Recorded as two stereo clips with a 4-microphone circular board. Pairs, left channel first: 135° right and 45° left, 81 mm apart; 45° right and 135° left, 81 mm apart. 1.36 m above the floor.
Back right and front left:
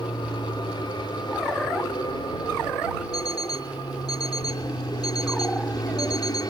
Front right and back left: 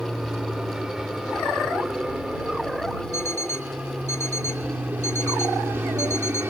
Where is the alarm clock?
100° right.